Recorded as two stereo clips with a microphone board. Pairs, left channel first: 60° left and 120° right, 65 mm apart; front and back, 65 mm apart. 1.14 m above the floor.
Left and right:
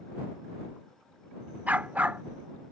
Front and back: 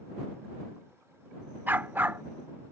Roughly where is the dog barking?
Behind.